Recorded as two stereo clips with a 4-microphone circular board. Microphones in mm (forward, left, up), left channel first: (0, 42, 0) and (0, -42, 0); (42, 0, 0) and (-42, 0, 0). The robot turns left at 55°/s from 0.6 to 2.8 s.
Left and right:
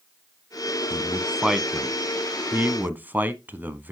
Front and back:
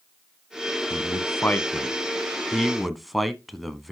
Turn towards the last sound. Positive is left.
turn(degrees=-95)